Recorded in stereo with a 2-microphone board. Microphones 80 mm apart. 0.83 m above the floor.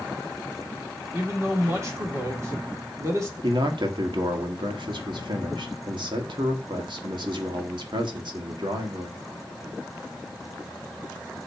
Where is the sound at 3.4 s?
65° right (ahead or behind), 1.6 m.